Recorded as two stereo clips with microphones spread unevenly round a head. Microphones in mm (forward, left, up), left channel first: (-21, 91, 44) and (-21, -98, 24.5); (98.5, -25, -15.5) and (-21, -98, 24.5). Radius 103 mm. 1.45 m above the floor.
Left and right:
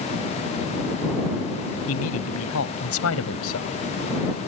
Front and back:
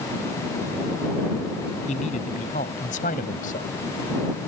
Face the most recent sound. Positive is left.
turn(degrees=85)